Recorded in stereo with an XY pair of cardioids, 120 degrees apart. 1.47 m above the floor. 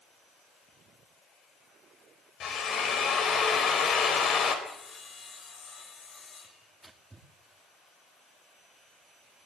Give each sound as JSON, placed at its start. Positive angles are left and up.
{"t": 2.4, "sound": "a drill", "azimuth_deg": 60, "distance_m": 4.0}
{"t": 4.7, "sound": "sawing", "azimuth_deg": 40, "distance_m": 6.0}
{"t": 6.4, "sound": "tearing paper", "azimuth_deg": -10, "distance_m": 2.5}